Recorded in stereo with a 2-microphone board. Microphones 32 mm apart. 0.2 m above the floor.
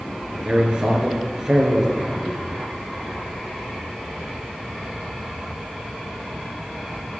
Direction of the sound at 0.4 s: 25° right (ahead or behind).